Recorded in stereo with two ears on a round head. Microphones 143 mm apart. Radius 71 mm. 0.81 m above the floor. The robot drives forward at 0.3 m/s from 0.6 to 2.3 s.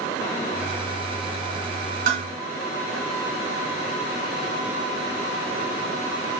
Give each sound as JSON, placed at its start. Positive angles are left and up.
{"t": 2.1, "sound": "dishes clattering", "side_deg": -50, "distance_m": 1.7}